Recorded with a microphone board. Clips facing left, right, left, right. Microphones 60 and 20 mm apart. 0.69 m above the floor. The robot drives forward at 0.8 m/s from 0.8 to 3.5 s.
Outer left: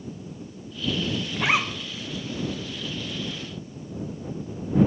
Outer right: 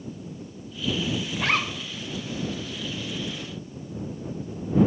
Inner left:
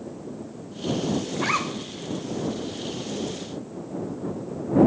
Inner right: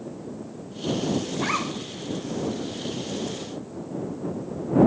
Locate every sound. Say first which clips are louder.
1.4 s a zipper: outer left 3 dB, inner left 1 dB; 15° left (ahead or behind), 0.6 m; by 2.0 s 5° left (ahead or behind), 1.1 m